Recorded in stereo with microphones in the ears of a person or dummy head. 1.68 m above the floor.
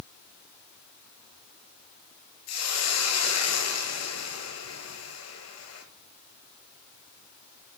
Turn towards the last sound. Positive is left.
turn(degrees=75)  # may be behind; listen again after turning